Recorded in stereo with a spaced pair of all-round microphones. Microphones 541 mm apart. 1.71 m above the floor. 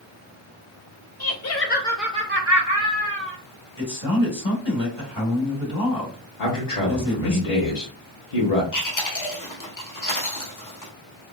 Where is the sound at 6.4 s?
75° left (ahead or behind), 1.1 m.